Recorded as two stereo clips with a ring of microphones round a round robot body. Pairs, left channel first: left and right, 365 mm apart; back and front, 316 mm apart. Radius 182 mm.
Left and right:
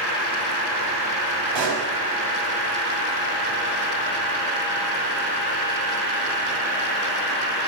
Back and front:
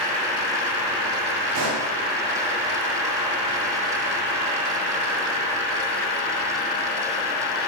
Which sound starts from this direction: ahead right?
A pop, at 1.6 s.